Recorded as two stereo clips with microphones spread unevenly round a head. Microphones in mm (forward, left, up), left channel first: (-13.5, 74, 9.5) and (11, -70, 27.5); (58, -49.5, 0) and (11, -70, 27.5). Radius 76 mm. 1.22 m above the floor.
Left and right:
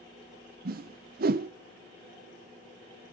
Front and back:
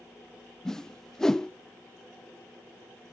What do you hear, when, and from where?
0.7 s a whoosh: 50° right, 0.6 m